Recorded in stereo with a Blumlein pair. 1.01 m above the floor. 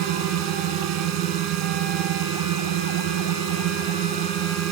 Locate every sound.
0.0 s a drone: 40° right